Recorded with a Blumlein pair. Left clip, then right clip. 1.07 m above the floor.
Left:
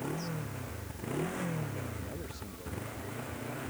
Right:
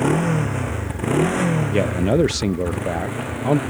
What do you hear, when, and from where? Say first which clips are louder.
0.0 s a motorcycle: right 18 dB; 40° right; by 3.7 s 35° right
1.7 s a man speaking: right 23 dB; 45° right